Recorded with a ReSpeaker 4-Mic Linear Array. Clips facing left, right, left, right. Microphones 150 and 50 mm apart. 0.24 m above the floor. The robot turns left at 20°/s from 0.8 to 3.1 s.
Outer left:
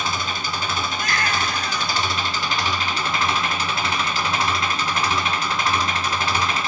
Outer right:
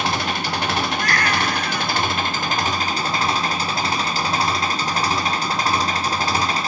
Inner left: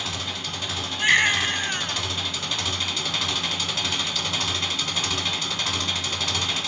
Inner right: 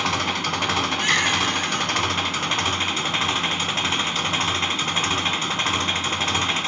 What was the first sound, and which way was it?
An engine running, 95° right.